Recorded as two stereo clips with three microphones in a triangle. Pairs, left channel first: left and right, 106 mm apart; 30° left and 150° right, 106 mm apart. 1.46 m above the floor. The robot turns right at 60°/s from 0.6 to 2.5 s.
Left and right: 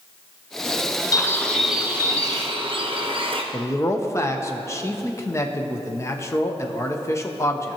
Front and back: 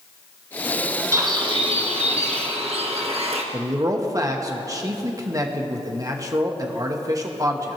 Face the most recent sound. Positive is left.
turn(degrees=155)